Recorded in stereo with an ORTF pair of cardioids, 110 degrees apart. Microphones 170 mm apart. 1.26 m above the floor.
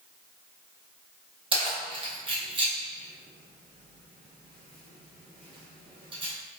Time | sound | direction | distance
1.5 | keys jangling | 30° right | 0.9 m